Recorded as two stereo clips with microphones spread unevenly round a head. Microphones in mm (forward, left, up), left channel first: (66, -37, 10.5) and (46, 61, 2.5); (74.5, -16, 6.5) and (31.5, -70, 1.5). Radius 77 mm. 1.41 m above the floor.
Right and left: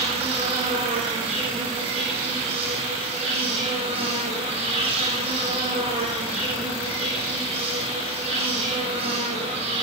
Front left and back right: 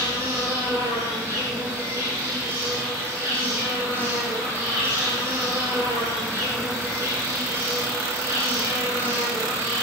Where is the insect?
155° left, 6 m.